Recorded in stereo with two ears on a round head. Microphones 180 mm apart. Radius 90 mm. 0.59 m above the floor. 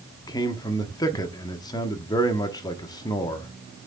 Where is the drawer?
No drawer in this recording.